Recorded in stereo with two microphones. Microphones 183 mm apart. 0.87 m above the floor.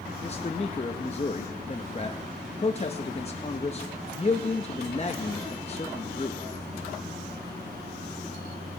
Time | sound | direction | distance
0.2 | a man speaking | 35° left (ahead or behind) | 0.6 m